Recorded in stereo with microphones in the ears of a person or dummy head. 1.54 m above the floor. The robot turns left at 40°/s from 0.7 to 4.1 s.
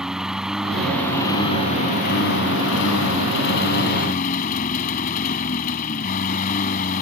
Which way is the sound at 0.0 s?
175° right.